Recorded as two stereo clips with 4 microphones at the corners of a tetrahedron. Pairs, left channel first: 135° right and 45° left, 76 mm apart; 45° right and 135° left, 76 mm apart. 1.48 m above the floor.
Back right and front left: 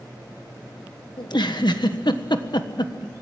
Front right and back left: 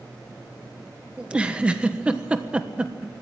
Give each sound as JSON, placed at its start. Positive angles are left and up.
{"t": 1.2, "sound": "a giggle", "azimuth_deg": -150, "distance_m": 1.3}